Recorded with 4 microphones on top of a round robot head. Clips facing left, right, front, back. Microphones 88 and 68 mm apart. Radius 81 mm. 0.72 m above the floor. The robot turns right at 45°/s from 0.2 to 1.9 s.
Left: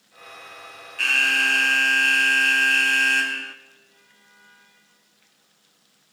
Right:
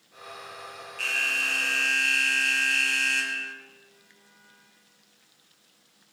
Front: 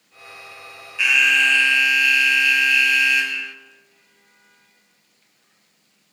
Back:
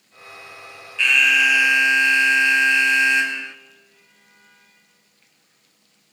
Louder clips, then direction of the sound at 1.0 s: Left 9 dB, even; 75° left.